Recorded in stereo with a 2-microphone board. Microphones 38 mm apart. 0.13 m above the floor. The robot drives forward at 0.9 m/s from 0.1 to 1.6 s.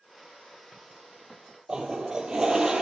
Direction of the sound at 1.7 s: 20° right (ahead or behind).